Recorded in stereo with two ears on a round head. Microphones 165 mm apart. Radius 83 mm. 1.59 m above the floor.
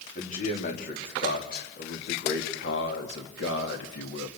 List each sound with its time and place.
0.1 s a man speaking: 45° left (ahead or behind), 3.5 m; by 4.3 s 80° left, 3 m